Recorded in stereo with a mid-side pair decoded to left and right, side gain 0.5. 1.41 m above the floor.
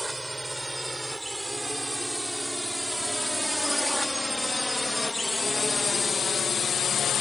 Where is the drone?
10° right; by 7.2 s 60° left.